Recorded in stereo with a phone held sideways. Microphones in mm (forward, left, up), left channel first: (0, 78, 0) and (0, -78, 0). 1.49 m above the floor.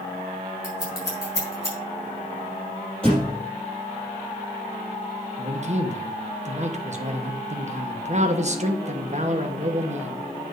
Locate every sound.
0.6 s scissors: 20° left (ahead or behind), 5.5 m
3.0 s a thud: 5° left (ahead or behind), 4 m
5.4 s a man speaking: 50° right (ahead or behind), 1.2 m